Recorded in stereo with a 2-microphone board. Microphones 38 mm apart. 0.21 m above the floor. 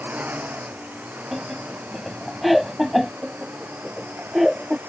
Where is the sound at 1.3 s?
Centre (ahead or behind).